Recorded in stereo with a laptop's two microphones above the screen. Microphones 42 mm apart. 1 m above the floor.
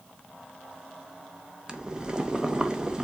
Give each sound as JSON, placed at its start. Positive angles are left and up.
{"t": 1.7, "sound": "boiling", "side_deg": -20, "distance_m": 0.8}